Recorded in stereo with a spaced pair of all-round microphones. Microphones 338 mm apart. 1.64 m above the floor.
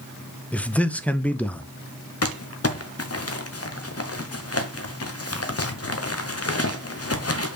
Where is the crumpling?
45° left (ahead or behind), 0.9 m.